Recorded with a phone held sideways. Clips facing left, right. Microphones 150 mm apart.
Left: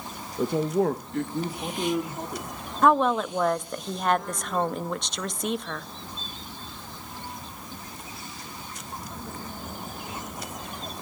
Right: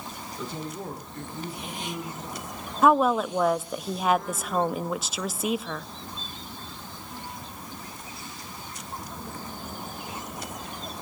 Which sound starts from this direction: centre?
A woman speaking, at 2.8 s.